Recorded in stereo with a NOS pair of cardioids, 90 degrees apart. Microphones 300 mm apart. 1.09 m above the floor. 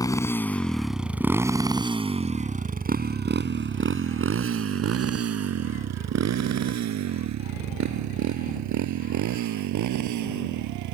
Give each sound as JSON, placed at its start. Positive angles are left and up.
{"t": 0.0, "sound": "a motorcycle", "azimuth_deg": 10}